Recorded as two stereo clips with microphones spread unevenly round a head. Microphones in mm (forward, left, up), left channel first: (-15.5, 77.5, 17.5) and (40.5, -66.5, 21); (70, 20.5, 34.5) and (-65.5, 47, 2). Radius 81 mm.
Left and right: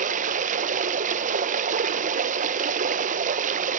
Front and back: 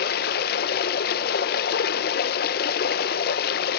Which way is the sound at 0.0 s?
35° right.